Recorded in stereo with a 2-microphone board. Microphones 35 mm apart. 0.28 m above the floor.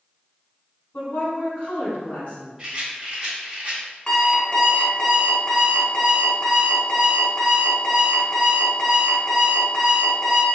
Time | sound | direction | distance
0.9 | a woman speaking | 55° left (ahead or behind) | 2.0 m
2.6 | a rattle | 25° right (ahead or behind) | 1.3 m
4.1 | an alarm clock | 25° left (ahead or behind) | 1.4 m